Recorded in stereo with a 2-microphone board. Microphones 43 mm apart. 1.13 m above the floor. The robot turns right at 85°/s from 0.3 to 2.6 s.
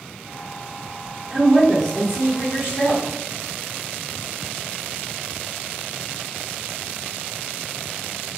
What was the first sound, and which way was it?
A woman speaking, 15° right.